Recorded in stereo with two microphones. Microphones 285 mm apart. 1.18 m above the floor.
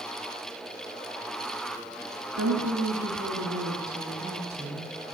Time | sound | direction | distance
2.4 | a woman speaking | 65° right (ahead or behind) | 2 m